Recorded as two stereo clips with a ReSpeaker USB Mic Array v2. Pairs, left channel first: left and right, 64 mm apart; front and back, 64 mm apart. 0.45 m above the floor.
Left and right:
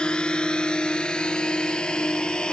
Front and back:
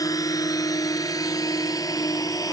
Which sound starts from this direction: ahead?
A drone, at 0.0 s.